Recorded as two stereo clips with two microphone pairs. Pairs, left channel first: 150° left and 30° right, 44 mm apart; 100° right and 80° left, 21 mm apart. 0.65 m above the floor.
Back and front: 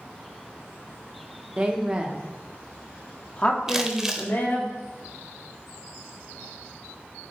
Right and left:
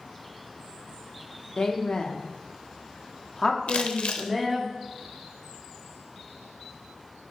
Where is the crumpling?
105° right, 0.6 m.